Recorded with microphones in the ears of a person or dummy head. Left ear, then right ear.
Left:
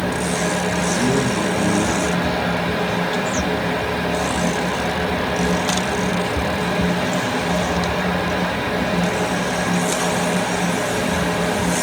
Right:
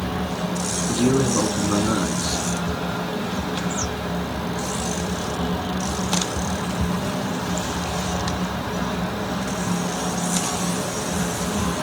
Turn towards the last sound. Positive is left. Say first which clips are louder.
# right 2 dB
turn(degrees=-55)  # may be behind; listen again after turning